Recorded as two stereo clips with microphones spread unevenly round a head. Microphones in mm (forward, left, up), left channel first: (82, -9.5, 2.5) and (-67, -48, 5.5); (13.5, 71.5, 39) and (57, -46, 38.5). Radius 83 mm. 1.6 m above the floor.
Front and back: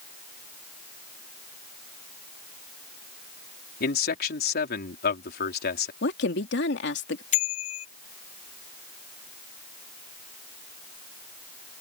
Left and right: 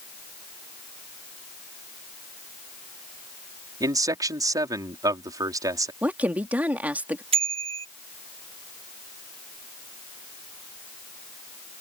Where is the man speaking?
10° right.